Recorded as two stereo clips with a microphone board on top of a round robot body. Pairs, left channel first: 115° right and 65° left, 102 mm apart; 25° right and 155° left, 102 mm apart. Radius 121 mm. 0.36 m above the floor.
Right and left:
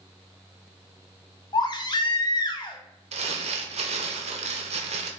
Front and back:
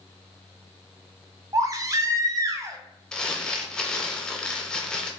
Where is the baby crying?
150° right, 0.7 m.